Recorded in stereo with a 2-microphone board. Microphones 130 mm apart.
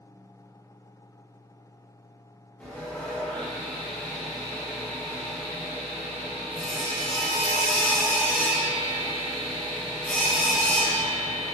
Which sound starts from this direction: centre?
Sawing, at 2.6 s.